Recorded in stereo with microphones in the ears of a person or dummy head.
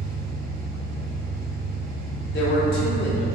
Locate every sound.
0.0 s an engine running: 25° right (ahead or behind), 1.9 m
2.3 s a man speaking: 55° left (ahead or behind), 1.2 m